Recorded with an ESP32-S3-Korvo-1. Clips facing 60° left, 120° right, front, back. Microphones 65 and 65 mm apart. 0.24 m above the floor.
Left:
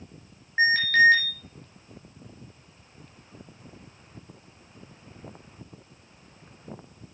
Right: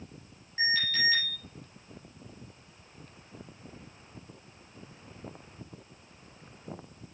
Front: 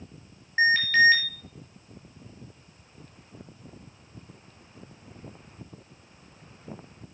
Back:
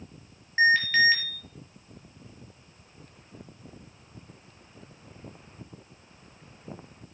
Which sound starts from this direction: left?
An alarm, at 0.6 s.